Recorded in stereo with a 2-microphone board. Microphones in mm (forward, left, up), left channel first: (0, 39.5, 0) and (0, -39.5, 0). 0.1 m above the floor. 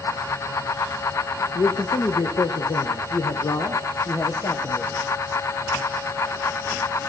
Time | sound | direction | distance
1.6 | a man speaking | 65° left (ahead or behind) | 3.5 m